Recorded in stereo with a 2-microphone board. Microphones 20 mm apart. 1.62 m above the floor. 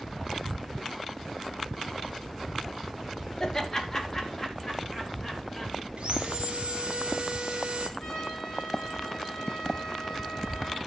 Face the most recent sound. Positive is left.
turn(degrees=20)  # may be behind; listen again after turning